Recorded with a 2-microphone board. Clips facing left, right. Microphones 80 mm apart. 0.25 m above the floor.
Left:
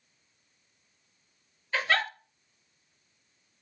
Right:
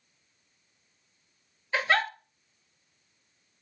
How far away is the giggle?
About 1.3 m.